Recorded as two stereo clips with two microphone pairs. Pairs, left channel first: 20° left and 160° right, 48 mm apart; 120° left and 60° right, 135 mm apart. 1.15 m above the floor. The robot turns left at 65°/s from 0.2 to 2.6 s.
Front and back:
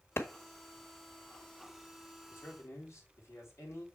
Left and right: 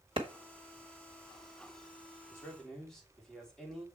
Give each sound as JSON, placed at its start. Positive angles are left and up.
{"t": 0.2, "sound": "a clap", "azimuth_deg": -10, "distance_m": 1.2}
{"t": 2.3, "sound": "a man speaking", "azimuth_deg": 50, "distance_m": 3.5}